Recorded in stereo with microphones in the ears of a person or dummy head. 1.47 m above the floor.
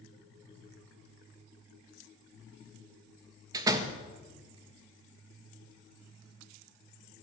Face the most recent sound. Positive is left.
turn(degrees=-15)  # may be behind; listen again after turning